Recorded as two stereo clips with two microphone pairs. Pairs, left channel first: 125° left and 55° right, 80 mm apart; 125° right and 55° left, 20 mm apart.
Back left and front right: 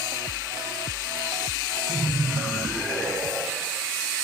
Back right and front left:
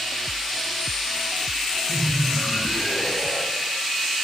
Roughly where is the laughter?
Behind right.